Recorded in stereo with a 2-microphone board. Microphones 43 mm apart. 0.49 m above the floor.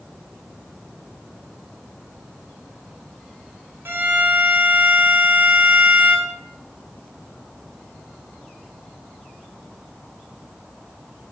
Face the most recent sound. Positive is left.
turn(degrees=-70)  # may be behind; listen again after turning